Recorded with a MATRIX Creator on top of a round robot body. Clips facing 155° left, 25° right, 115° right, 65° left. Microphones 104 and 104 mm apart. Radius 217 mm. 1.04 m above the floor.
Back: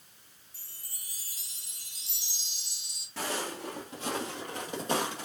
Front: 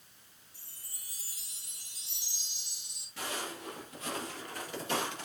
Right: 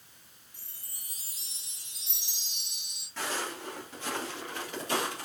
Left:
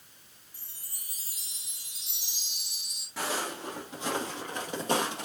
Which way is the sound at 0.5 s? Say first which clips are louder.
Back 4 dB, left 1 dB; 145° left.